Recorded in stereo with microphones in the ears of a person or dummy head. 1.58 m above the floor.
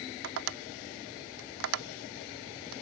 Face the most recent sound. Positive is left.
turn(degrees=-75)  # may be behind; listen again after turning